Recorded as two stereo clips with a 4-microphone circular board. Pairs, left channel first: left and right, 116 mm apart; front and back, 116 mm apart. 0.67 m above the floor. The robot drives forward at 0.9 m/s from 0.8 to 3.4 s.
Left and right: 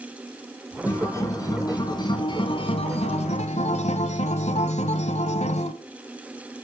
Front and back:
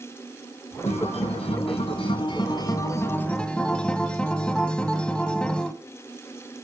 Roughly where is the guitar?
Ahead left.